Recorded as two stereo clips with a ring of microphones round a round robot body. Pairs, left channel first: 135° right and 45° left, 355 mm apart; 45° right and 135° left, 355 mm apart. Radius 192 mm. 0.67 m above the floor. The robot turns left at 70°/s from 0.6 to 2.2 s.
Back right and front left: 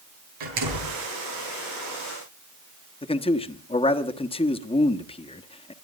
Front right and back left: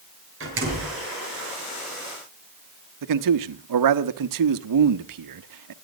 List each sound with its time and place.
0.4 s a door slam: 75° left, 8 m; by 1.0 s 50° left, 8 m
3.0 s a man speaking: 150° left, 1.0 m